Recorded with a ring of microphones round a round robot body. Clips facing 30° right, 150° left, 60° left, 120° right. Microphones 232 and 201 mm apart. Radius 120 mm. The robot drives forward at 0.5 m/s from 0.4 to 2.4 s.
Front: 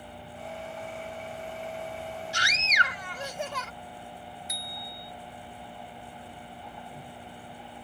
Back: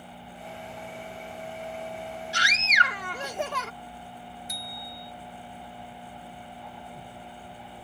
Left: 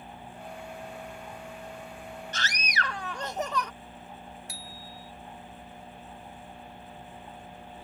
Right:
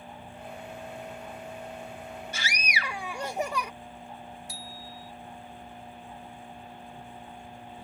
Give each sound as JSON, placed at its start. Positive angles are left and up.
{"t": 2.3, "sound": "a scream", "azimuth_deg": 160}
{"t": 4.5, "sound": "a bicycle bell", "azimuth_deg": 90}